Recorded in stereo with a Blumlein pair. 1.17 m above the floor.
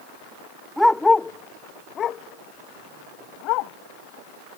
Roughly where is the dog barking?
Ahead.